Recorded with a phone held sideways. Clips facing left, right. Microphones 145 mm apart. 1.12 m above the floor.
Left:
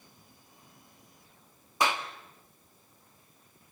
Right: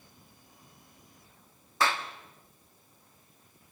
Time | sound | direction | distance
1.8 | a clap | 15° left (ahead or behind) | 1.3 m